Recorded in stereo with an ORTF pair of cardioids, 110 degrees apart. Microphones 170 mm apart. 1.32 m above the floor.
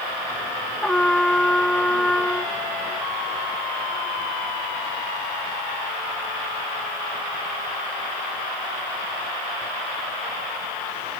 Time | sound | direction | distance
0.8 | a trumpet | 5° left | ?